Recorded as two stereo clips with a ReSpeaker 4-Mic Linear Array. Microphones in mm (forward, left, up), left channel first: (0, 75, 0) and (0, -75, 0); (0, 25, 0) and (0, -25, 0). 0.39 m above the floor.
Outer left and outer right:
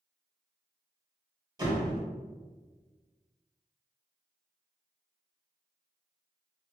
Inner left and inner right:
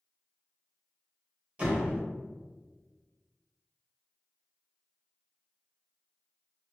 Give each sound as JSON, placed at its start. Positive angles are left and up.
{"t": 1.6, "sound": "a door slam", "side_deg": -25, "distance_m": 0.8}